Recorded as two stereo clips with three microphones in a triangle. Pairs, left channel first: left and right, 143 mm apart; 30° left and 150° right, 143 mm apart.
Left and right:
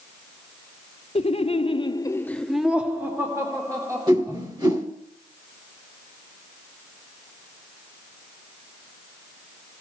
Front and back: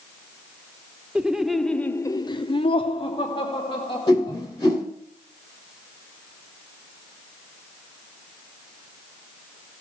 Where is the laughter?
130° left, 0.9 m; by 4.4 s 25° right, 1.9 m.